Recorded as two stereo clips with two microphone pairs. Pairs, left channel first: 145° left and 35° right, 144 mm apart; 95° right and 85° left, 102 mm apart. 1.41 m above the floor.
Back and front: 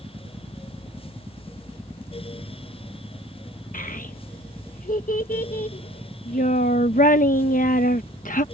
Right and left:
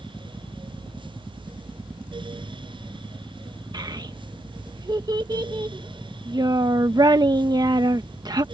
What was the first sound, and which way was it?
A child speaking, 130° left.